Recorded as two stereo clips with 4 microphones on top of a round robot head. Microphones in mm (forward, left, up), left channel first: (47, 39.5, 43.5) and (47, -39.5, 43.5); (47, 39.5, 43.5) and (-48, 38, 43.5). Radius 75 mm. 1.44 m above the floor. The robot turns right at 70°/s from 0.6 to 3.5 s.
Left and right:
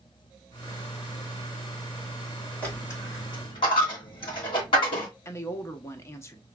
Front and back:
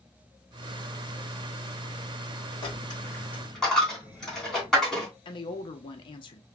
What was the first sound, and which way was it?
A dropped coin, 25° left.